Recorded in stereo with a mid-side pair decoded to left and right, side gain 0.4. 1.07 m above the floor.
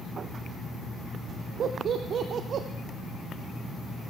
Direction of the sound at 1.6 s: 65° right.